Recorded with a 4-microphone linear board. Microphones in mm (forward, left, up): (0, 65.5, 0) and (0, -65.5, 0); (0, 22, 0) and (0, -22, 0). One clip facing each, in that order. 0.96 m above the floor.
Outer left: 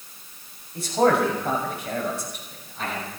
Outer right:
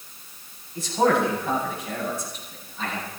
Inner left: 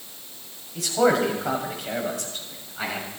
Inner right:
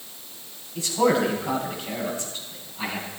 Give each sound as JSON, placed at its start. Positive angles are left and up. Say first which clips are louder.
{"t": 0.8, "sound": "a man speaking", "louder": "outer left 1 dB, inner left 1 dB", "side_deg": 70, "distance_m": 7.0}